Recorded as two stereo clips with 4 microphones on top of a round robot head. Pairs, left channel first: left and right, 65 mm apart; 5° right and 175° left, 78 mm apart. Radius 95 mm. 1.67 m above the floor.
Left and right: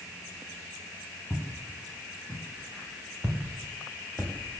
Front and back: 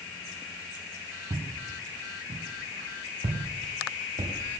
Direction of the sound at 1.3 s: 155° left.